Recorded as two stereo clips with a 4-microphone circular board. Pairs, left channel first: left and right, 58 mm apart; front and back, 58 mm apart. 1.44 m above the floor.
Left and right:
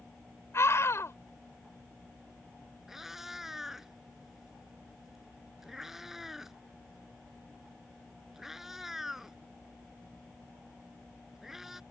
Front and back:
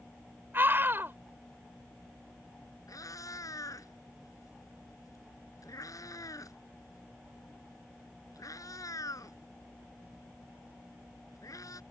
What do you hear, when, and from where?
0.5 s a scream: 130° left
2.9 s a cat meowing: 5° right